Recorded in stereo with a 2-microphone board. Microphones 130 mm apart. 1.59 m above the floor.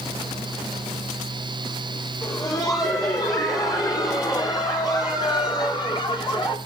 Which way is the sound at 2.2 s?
25° left (ahead or behind).